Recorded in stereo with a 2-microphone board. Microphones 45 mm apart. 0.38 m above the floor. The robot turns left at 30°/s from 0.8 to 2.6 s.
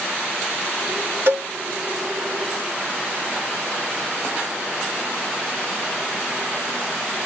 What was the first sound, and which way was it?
A cowbell, 55° right (ahead or behind).